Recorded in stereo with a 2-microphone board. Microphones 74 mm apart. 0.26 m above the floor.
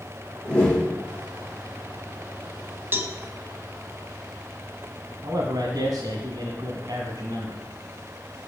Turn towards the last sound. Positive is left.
turn(degrees=-60)  # may be behind; listen again after turning